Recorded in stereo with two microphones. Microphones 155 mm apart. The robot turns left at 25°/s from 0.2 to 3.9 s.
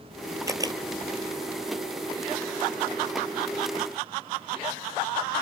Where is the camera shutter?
20° right (ahead or behind); by 0.8 s 30° right (ahead or behind).